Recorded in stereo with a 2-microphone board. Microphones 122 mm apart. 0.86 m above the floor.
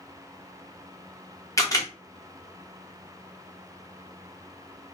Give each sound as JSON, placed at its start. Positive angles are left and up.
{"t": 1.6, "sound": "a camera shutter", "side_deg": 25, "distance_m": 0.7}